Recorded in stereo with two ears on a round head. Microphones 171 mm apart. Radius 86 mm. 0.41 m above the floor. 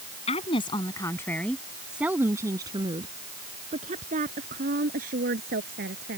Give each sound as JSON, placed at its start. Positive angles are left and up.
{"t": 0.3, "sound": "a woman speaking", "side_deg": 35}